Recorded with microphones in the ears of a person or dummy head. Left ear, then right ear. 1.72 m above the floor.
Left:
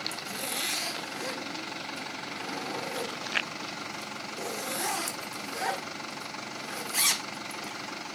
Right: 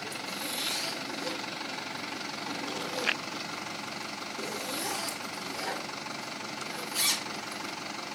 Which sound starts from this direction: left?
A zipper, at 0.1 s.